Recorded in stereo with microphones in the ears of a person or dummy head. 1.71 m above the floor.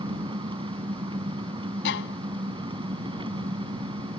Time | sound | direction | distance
0.0 | an engine running | 35° right (ahead or behind) | ?
1.9 | a violin | 75° left (ahead or behind) | ?